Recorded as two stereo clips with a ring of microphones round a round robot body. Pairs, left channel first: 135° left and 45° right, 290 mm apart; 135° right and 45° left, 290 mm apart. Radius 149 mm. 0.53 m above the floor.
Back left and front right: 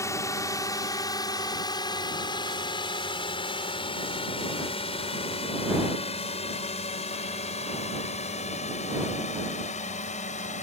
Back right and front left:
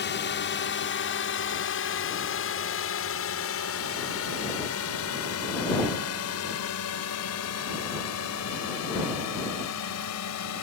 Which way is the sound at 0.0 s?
150° right.